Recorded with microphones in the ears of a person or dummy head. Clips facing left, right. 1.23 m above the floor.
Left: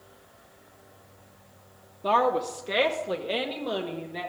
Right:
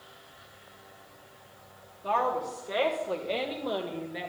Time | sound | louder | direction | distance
2.0 | a woman speaking | left 5 dB | 60° left (ahead or behind) | 0.8 m